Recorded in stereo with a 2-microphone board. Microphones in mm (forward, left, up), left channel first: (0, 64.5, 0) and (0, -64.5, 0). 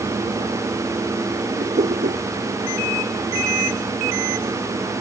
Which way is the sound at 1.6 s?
80° right.